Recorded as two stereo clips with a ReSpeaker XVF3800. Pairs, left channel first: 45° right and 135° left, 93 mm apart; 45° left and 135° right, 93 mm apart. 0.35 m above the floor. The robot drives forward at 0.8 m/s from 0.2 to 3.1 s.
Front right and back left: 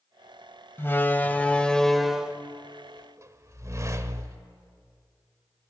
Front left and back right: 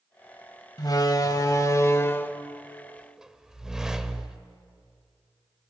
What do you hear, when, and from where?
0.8 s a door slam: 15° left, 1.6 m; by 4.4 s 150° left, 1.1 m